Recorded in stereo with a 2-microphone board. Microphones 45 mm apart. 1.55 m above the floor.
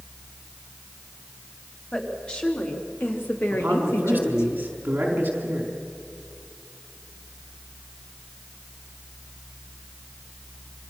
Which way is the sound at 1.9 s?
20° left (ahead or behind).